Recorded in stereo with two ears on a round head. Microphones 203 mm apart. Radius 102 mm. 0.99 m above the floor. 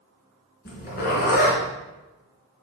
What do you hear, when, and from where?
0.7 s a zipper: 45° left (ahead or behind), 3.5 m